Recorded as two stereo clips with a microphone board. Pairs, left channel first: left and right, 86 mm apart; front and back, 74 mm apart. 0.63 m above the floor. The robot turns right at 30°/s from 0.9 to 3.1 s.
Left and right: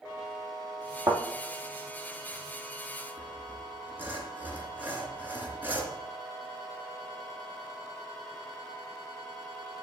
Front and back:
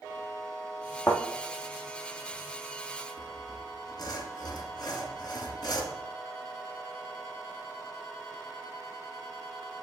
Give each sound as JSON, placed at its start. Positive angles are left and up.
{"t": 1.1, "sound": "a thud", "azimuth_deg": -70, "distance_m": 2.0}
{"t": 3.2, "sound": "sawing", "azimuth_deg": -20, "distance_m": 2.0}